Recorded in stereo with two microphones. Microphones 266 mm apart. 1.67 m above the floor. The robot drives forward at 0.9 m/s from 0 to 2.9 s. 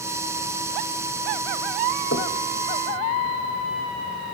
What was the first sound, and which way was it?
Knocking, 60° left (ahead or behind).